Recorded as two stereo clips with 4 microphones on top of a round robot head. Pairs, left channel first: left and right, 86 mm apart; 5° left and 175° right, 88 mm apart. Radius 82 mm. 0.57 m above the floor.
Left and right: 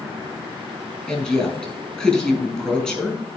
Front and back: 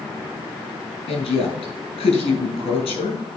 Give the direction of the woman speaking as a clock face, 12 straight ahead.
12 o'clock.